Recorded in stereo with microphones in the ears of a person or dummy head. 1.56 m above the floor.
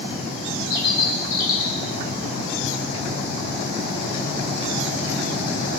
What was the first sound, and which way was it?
A bird, 75° left (ahead or behind).